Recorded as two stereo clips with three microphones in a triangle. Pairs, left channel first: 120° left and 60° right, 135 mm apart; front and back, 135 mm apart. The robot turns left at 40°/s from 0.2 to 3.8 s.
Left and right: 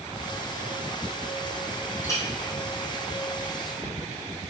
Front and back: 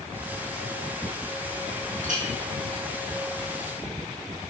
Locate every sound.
2.0 s a clink: 170° right, 2.5 m; by 2.2 s straight behind, 2.5 m